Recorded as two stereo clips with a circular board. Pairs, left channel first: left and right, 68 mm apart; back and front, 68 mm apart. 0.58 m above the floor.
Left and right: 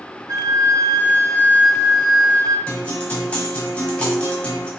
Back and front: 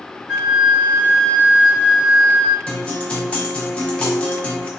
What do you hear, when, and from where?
0.3 s a flute: 75° right, 1.1 m
2.7 s a guitar: 135° left, 1.0 m